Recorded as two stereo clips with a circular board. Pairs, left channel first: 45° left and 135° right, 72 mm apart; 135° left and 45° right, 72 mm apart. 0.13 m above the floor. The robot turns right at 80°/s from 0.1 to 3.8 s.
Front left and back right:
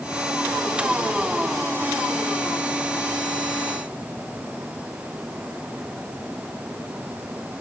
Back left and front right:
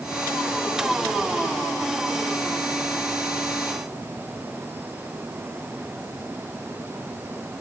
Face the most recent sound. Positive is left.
No sound to turn to.